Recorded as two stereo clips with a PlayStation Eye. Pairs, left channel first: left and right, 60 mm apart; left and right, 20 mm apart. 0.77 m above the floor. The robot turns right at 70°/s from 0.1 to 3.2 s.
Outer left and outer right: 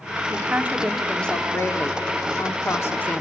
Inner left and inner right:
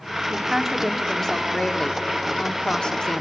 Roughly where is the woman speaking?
Ahead right.